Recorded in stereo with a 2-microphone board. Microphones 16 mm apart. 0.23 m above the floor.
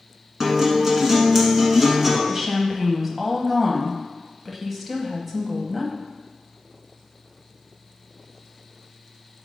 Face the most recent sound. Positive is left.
turn(degrees=-10)  # may be behind; listen again after turning